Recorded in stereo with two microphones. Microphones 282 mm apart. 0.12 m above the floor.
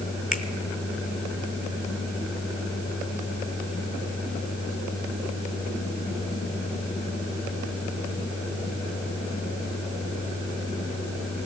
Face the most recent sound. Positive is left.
turn(degrees=25)  # may be behind; listen again after turning